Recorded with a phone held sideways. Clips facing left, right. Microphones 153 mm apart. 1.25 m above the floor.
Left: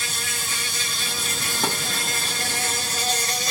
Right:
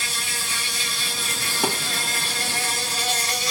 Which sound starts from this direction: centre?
A thud, at 1.6 s.